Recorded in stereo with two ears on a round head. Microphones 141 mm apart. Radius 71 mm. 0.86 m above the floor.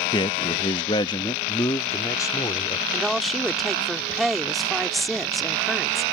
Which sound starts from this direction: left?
A man speaking, at 0.1 s.